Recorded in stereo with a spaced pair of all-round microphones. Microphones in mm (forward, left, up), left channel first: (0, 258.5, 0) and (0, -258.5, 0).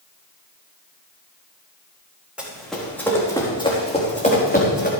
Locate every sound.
2.4 s running footsteps: centre (ahead or behind), 4.5 m; by 4.9 s 20° left (ahead or behind), 4.5 m